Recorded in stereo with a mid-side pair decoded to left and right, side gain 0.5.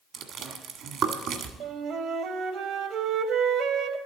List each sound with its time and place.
0.1 s chewing: 70° right, 1.6 m
1.6 s a flute: 70° right, 1.2 m